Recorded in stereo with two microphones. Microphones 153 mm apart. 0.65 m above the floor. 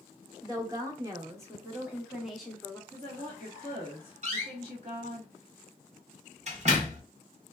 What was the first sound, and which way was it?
A woman speaking, 25° right (ahead or behind).